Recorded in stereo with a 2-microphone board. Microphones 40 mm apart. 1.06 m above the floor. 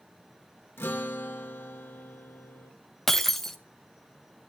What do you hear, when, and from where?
0.8 s a guitar: 65° left (ahead or behind), 1.1 m
3.1 s breaking glass: 5° left (ahead or behind), 0.5 m